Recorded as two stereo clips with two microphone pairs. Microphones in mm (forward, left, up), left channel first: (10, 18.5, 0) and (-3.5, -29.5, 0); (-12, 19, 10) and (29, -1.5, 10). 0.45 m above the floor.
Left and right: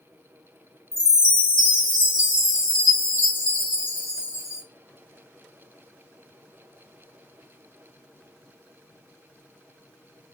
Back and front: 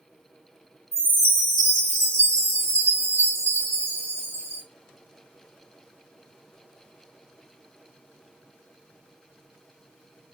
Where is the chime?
45° right, 1.8 m.